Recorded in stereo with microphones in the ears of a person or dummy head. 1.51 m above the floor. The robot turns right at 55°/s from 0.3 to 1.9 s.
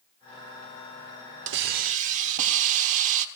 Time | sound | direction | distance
1.5 | a hiss | 65° right (ahead or behind) | 1.0 m